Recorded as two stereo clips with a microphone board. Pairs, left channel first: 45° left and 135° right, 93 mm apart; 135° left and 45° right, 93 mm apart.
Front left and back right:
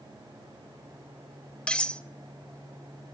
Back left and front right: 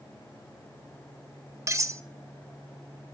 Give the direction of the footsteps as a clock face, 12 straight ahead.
No footsteps in this recording.